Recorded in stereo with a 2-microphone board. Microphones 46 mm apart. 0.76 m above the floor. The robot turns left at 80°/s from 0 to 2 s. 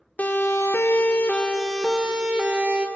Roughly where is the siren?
Left.